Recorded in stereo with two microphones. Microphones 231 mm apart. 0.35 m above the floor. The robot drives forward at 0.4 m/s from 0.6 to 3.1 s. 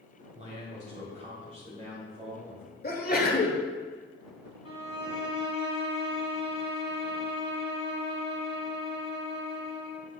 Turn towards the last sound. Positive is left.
turn(degrees=70)  # may be behind; listen again after turning